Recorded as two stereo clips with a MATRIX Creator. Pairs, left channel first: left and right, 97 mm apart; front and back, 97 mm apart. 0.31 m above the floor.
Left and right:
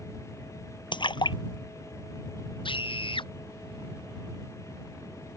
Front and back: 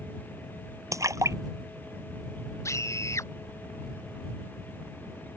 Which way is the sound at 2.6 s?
60° left.